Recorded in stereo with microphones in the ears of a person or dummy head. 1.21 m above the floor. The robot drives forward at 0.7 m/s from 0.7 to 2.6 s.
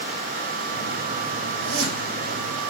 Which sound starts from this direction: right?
A zipper, at 1.6 s.